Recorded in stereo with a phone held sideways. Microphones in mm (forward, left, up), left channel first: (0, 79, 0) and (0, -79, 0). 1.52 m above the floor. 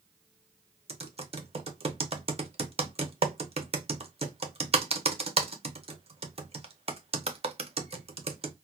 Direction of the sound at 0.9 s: 40° right (ahead or behind).